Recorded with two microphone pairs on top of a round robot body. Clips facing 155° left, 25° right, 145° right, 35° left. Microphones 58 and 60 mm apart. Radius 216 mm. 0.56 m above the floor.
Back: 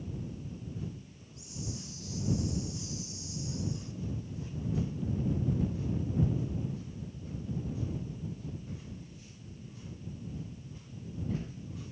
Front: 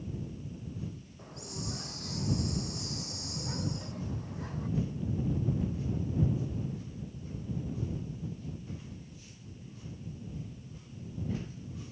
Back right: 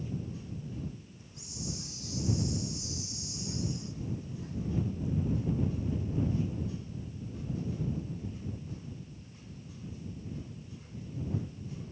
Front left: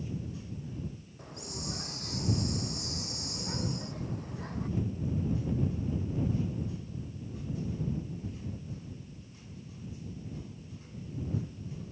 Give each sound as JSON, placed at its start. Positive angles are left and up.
{"t": 1.2, "sound": "a hiss", "azimuth_deg": 0}